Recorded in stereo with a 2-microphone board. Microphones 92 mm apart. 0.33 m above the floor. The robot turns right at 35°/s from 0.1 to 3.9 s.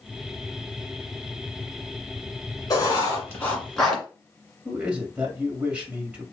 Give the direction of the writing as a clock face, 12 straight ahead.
8 o'clock.